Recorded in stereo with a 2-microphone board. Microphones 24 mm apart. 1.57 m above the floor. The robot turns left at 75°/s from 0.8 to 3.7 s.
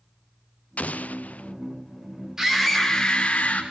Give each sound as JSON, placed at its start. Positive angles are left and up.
{"t": 0.8, "sound": "an explosion", "azimuth_deg": 110, "distance_m": 0.5}
{"t": 2.4, "sound": "a scream", "azimuth_deg": -160, "distance_m": 5.0}